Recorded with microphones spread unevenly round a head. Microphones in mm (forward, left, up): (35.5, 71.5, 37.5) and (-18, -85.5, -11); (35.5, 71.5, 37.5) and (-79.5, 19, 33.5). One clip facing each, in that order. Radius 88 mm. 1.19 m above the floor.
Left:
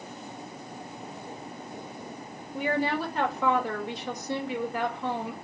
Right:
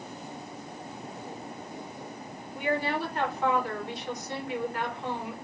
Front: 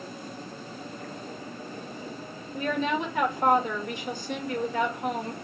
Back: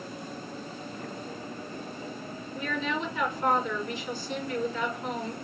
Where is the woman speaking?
60° left, 1.7 m.